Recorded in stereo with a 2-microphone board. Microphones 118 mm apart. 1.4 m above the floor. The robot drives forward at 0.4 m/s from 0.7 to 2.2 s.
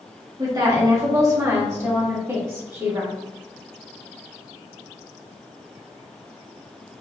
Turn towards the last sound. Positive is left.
turn(degrees=-20)  # may be behind; listen again after turning